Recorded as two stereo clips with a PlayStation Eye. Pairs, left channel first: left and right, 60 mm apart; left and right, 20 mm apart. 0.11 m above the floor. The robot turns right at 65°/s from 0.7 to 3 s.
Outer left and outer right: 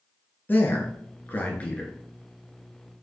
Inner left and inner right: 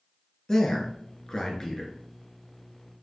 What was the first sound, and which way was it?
A man speaking, 35° left (ahead or behind).